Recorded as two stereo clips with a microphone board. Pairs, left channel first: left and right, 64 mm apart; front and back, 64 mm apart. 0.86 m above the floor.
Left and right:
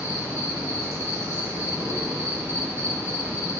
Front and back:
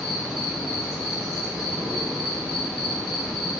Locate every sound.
0.0 s an insect: 95° right, 0.9 m